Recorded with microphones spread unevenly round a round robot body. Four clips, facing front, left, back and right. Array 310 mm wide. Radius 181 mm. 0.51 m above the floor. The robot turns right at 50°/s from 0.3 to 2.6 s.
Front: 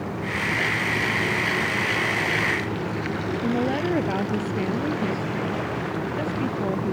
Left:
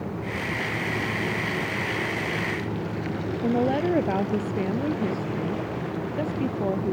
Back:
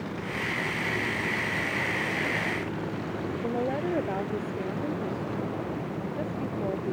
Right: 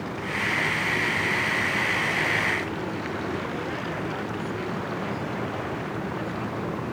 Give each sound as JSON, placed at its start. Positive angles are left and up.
{"t": 3.4, "sound": "a woman speaking", "azimuth_deg": 60}